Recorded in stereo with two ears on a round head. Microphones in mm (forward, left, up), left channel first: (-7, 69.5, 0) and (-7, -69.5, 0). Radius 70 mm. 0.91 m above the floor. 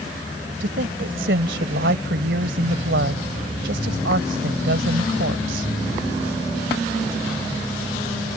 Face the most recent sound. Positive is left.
turn(degrees=-80)